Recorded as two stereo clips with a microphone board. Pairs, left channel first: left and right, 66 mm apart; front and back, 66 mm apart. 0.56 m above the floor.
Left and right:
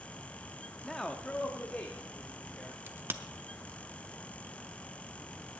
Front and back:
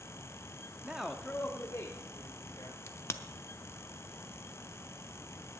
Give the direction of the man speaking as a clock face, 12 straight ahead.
6 o'clock.